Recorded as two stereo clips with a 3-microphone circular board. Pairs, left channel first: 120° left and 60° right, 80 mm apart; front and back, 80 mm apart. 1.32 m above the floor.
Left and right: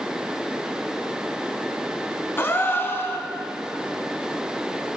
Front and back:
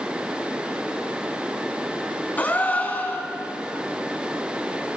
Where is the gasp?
65° left, 2 m.